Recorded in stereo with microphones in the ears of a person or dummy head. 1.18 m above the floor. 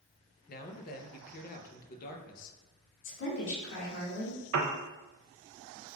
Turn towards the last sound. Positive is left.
turn(degrees=-75)  # may be behind; listen again after turning